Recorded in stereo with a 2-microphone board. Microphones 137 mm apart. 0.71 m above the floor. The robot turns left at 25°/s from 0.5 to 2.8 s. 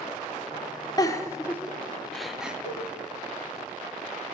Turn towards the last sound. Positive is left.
turn(degrees=55)  # may be behind; listen again after turning